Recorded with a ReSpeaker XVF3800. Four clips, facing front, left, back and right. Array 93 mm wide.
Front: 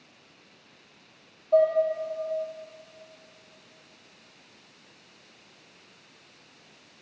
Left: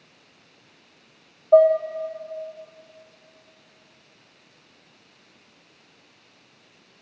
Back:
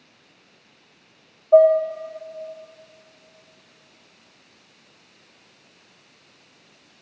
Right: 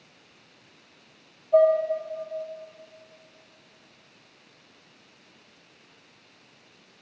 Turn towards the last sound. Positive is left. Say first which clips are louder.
# left 4 dB, back 8 dB
turn(degrees=115)